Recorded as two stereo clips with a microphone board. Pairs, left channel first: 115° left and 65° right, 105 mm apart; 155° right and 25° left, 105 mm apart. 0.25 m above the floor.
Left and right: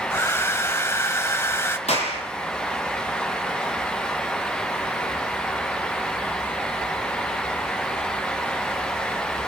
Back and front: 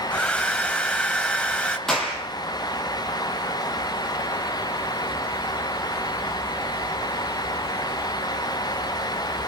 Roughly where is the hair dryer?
Behind left.